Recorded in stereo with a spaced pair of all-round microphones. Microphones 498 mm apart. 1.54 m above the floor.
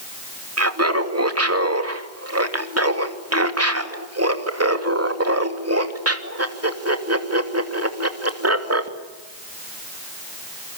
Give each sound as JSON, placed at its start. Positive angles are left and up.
{"t": 0.6, "sound": "laughter", "side_deg": -30, "distance_m": 2.5}